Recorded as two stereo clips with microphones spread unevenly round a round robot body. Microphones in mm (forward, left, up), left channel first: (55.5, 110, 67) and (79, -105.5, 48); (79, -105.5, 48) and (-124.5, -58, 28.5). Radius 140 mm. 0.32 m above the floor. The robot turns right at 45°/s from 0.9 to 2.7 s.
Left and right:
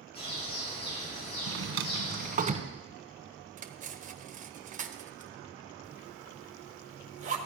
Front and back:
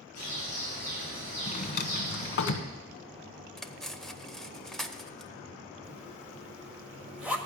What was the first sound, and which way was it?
A bird, 30° left.